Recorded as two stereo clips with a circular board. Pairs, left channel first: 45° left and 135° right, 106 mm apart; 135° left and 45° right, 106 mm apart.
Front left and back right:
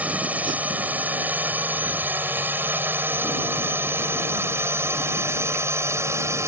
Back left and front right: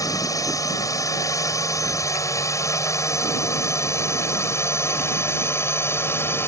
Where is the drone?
160° left; by 6.5 s 175° right.